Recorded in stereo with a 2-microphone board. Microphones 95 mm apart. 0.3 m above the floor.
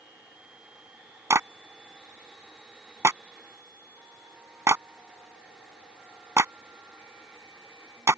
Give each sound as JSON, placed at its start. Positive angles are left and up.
{"t": 1.3, "sound": "a clap", "side_deg": -30}